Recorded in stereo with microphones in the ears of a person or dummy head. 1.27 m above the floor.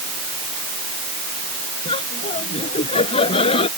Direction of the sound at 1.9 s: 35° left (ahead or behind).